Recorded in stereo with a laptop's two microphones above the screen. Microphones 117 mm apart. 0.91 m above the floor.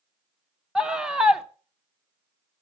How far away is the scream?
About 1.0 m.